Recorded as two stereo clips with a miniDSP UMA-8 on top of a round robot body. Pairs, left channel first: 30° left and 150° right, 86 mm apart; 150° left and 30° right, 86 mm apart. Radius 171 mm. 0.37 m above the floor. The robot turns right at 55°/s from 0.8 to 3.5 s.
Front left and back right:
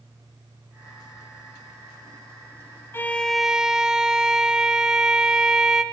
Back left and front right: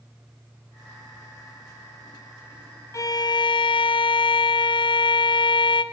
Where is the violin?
95° left, 0.7 m; by 5.8 s 125° left, 0.7 m.